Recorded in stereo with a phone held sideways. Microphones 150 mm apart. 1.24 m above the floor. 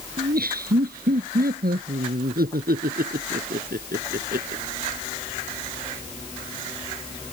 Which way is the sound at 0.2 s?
85° right.